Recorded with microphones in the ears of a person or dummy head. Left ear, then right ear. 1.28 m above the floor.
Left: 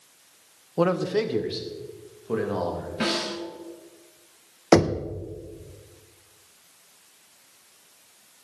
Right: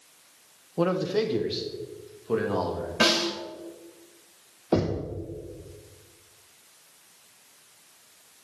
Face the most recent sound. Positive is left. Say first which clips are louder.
# left 7 dB
turn(degrees=65)  # may be behind; listen again after turning